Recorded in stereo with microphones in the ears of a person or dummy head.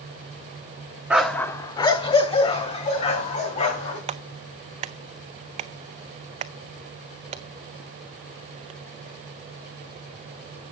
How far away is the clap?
About 0.7 m.